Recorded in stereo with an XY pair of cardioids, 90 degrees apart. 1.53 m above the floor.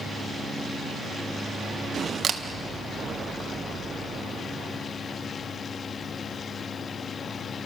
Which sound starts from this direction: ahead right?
A camera shutter, at 2.2 s.